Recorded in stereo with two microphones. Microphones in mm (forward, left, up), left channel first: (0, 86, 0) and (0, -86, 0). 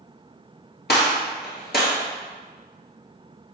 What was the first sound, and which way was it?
A gunshot, 75° left (ahead or behind).